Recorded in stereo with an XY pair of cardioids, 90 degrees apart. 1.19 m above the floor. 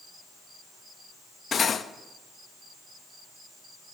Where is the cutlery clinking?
50° left, 0.8 m.